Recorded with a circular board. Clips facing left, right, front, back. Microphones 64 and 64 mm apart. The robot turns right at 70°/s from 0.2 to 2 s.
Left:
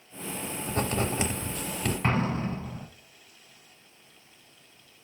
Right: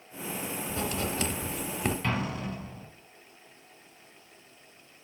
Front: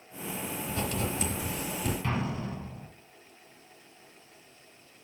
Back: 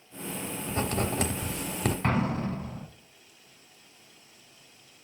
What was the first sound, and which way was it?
Writing, 120° left.